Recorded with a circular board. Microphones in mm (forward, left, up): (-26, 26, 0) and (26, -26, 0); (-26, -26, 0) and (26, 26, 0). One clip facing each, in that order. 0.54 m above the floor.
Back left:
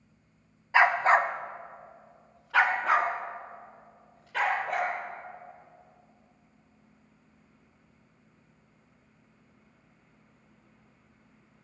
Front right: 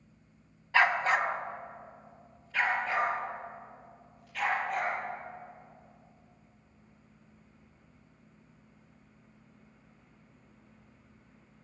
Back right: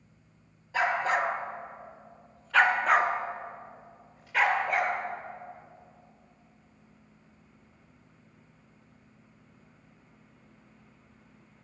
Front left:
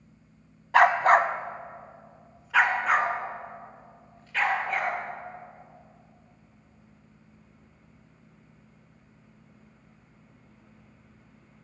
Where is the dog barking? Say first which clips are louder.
Back left 4 dB, front left 8 dB; 65° left, 0.9 m; by 4.9 s 145° left, 3 m.